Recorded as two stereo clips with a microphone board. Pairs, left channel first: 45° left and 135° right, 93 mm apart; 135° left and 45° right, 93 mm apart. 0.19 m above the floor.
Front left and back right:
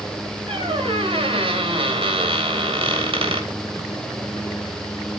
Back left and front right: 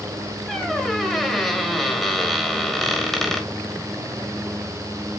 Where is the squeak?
140° right, 2.5 m.